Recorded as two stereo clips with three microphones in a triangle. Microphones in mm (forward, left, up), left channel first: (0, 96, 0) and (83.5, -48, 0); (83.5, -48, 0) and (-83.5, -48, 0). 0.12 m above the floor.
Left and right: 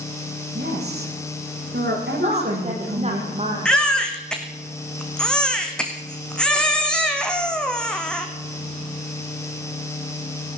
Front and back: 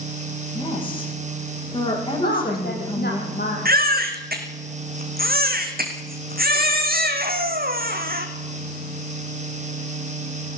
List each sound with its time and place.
0.6 s a woman speaking: 60° right, 9.5 m
2.2 s a woman speaking: 10° right, 6 m
3.6 s a baby crying: 155° right, 2.5 m